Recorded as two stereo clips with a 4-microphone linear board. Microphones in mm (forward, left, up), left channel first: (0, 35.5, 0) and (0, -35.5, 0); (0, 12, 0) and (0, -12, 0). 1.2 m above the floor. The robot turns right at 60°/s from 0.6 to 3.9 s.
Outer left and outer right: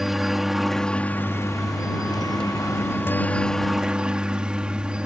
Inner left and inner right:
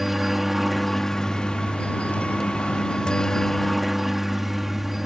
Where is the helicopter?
5° right; by 5.1 s 165° right.